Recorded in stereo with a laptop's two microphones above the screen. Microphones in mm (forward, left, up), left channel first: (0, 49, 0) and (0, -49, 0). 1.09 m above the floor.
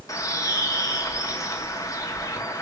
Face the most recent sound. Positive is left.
turn(degrees=35)  # may be behind; listen again after turning